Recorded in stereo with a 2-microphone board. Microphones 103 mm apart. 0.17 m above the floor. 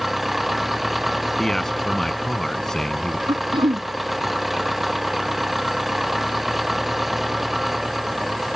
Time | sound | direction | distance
0.0 | an engine running | centre (ahead or behind) | ?
1.4 | a man speaking | 5° left (ahead or behind) | ?
3.3 | throat clearing | 55° right (ahead or behind) | ?